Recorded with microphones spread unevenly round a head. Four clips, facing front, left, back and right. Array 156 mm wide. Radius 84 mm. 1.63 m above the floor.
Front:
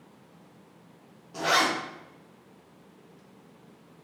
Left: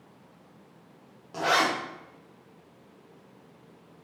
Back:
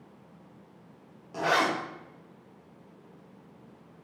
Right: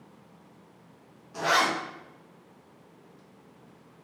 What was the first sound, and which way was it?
A zipper, 110° left.